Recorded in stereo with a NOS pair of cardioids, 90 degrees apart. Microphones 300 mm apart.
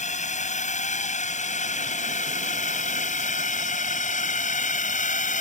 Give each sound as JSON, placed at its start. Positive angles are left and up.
{"t": 0.0, "sound": "a drone", "azimuth_deg": 25}